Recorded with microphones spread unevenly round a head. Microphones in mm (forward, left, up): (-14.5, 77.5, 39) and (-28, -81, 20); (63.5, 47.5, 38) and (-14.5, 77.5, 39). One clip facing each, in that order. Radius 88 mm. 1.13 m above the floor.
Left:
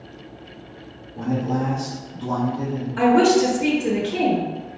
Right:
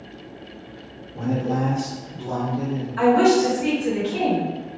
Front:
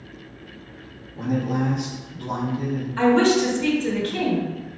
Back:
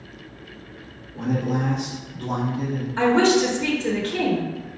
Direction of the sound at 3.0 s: 95° left.